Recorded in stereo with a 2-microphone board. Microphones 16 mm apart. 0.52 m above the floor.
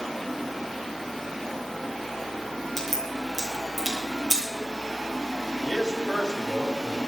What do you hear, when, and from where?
2.8 s a crack: centre (ahead or behind), 8.5 m
5.7 s a man speaking: 50° left (ahead or behind), 3.5 m